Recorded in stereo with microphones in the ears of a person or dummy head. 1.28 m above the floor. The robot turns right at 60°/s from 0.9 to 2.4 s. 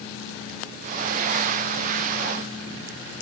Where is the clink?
No clink in this recording.